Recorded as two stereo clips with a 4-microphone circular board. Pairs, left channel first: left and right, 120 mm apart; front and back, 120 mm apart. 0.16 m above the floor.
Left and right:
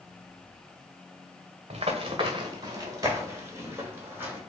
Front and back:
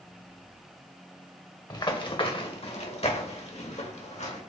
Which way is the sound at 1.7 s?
55° right.